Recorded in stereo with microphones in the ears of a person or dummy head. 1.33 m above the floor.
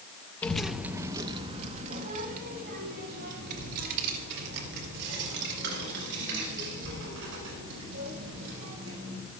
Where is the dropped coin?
No dropped coin in this recording.